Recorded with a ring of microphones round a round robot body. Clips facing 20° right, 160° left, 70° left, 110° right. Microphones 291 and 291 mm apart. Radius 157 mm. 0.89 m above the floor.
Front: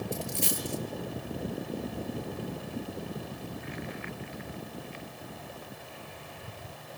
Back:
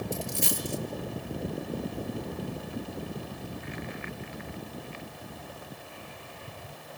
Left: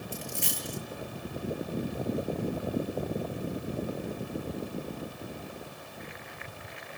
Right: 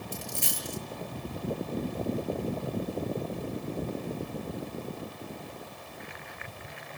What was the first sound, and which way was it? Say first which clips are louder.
A dropped coin: back 1 dB, left 1 dB; 160° right.